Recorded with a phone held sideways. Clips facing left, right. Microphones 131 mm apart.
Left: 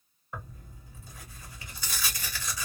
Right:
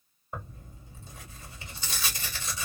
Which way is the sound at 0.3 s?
20° right (ahead or behind).